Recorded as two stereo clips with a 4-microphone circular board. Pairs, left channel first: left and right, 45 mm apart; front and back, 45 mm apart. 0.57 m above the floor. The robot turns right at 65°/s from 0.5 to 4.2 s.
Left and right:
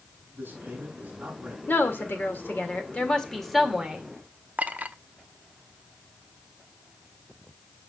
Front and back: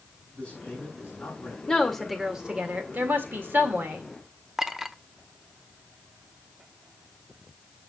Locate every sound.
0.3 s a man speaking: 70° right, 6 m; by 1.6 s straight ahead, 6 m
1.7 s a woman speaking: 60° left, 1.9 m; by 4.0 s 145° right, 1.9 m
4.6 s a clink: 105° right, 0.5 m